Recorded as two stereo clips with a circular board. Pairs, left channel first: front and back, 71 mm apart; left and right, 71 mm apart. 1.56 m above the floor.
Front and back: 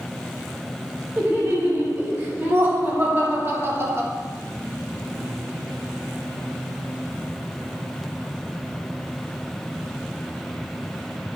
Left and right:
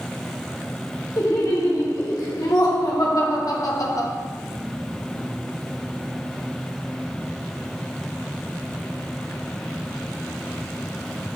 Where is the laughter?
120° left, 3 m; by 4.1 s 125° left, 1.0 m.